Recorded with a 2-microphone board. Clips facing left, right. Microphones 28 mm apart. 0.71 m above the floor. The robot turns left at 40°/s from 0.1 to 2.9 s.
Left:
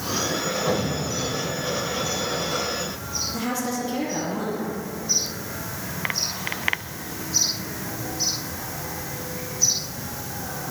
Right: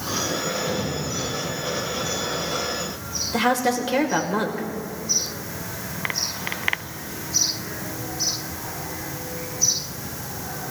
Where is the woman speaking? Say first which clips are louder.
Right 9 dB; 75° right (ahead or behind), 2.5 m.